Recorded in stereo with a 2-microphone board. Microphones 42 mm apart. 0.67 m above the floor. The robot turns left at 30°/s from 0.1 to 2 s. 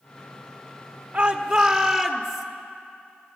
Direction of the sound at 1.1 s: 15° right (ahead or behind).